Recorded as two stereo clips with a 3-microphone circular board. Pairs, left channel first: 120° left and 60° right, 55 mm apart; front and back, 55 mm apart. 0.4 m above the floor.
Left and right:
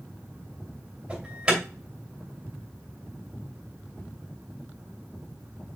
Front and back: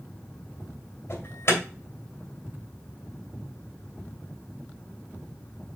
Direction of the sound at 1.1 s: 5° left.